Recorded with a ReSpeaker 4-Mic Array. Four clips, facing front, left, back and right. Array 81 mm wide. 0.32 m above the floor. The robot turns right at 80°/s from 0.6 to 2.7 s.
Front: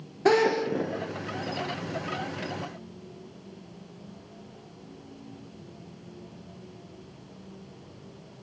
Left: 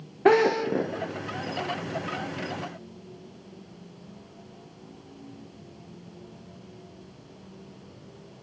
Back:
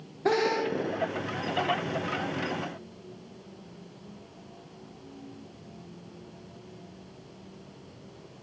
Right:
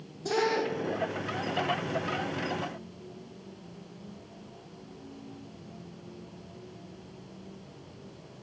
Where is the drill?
75° left, 10 m; by 0.9 s 100° left, 10 m.